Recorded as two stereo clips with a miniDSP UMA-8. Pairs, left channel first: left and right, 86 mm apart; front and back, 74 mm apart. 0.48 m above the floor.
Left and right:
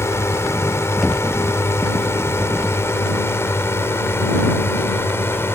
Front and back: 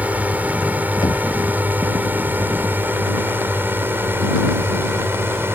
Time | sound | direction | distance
0.0 | a drone | 125° left | ?
1.0 | knocking | straight ahead | ?